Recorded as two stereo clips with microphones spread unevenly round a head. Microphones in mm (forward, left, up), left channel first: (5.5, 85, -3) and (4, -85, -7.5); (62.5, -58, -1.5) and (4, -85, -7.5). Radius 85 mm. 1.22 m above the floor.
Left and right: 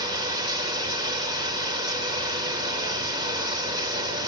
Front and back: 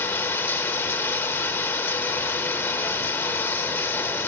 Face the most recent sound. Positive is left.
turn(degrees=-25)